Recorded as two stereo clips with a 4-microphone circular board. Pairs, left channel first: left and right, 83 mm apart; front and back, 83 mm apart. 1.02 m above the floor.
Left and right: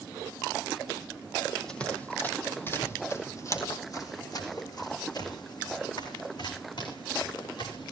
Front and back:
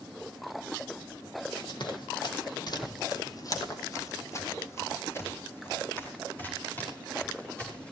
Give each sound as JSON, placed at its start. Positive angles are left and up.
{"t": 1.6, "sound": "running footsteps", "azimuth_deg": 10, "distance_m": 2.5}